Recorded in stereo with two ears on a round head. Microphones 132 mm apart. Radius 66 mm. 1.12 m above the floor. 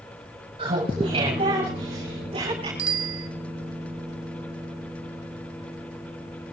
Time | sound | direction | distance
0.6 | laughter | 40° right (ahead or behind) | 7.5 m
2.8 | a bicycle bell | 80° right | 2.5 m